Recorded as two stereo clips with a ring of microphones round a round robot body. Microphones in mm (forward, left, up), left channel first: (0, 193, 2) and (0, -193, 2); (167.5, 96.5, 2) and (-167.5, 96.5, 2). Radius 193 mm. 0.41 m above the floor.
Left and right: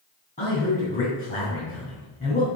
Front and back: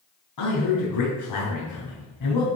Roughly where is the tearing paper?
No tearing paper in this recording.